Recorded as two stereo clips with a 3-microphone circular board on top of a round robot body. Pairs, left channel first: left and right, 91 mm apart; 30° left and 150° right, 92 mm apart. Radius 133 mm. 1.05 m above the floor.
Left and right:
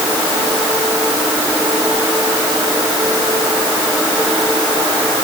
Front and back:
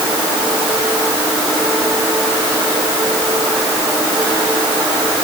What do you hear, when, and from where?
Only background noise.